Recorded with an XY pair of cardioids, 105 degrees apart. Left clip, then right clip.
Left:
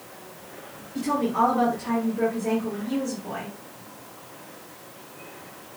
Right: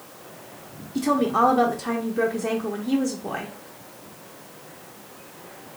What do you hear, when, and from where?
0.9 s a woman speaking: 65° right, 1.0 m